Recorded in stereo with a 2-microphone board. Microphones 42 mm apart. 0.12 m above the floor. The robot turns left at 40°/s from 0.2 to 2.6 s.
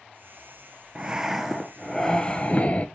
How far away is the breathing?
About 0.9 m.